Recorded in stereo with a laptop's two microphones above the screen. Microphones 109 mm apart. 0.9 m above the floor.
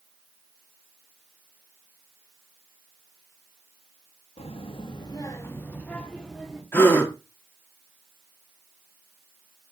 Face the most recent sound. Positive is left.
turn(degrees=20)  # may be behind; listen again after turning